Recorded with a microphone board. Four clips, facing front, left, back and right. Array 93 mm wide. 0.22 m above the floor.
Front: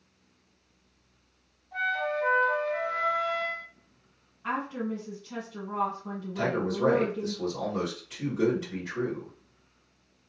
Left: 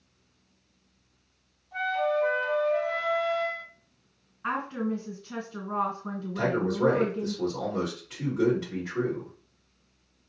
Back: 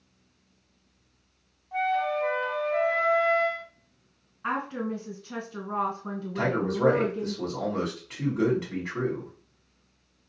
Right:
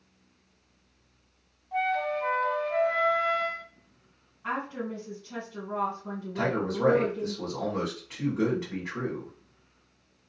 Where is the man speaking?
145° right, 2 m.